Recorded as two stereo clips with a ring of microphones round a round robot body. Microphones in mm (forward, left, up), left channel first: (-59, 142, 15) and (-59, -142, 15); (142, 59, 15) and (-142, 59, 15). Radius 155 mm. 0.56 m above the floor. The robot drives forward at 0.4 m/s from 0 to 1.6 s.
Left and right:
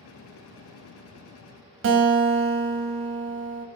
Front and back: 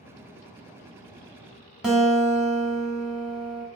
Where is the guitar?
90° right, 0.7 m.